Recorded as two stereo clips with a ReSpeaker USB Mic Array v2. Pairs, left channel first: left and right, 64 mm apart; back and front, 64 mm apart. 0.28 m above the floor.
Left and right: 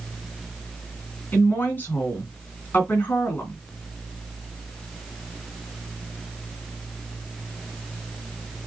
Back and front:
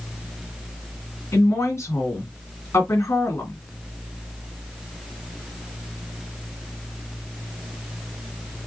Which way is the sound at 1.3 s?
145° left.